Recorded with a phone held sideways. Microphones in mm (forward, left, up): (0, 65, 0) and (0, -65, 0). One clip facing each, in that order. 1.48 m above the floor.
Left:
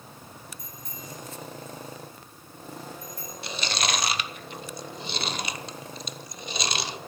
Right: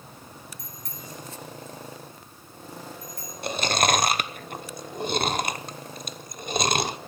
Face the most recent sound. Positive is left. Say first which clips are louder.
# right 7 dB
turn(degrees=-50)  # may be behind; listen again after turning